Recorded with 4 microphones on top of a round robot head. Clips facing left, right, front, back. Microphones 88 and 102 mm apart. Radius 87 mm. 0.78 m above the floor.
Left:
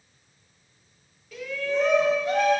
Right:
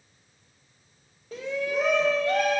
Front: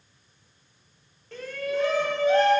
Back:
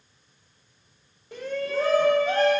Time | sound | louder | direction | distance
1.3 | a shout | left 1 dB, back 2 dB | 115° right | 0.5 m